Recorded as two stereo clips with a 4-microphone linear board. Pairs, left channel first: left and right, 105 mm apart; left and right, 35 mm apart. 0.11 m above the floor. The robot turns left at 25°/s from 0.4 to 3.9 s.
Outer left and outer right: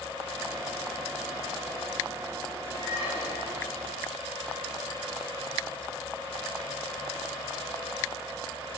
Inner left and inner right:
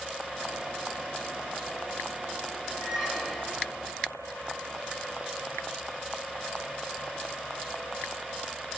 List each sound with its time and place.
2.8 s a squeak: 65° left (ahead or behind), 5.5 m; by 3.7 s 45° left (ahead or behind), 5.5 m